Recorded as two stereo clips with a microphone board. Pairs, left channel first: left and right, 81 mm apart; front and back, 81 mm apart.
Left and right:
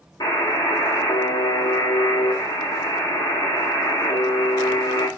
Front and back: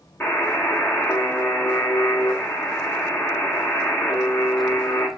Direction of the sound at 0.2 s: 65° left.